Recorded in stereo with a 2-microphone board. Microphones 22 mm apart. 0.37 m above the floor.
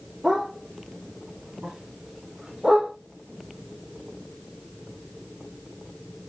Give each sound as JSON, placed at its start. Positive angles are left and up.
{"t": 0.2, "sound": "a dog barking", "side_deg": -30, "distance_m": 6.0}